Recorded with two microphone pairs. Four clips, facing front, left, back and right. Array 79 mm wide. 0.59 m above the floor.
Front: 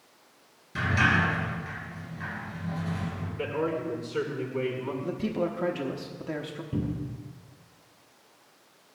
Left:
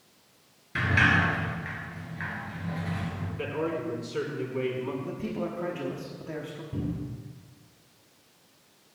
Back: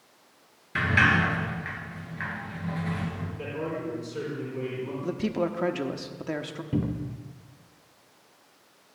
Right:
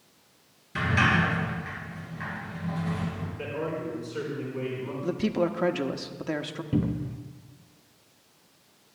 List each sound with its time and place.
0.8 s a sliding door: 160° left, 2.5 m
3.4 s a man speaking: 30° left, 4.5 m
5.0 s a man speaking: 120° right, 0.7 m
6.7 s a cupboard door: 140° right, 0.7 m